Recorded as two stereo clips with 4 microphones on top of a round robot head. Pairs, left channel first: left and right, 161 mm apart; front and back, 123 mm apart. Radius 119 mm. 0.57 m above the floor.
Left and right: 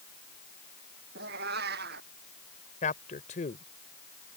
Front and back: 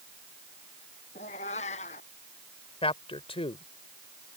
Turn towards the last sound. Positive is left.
turn(degrees=40)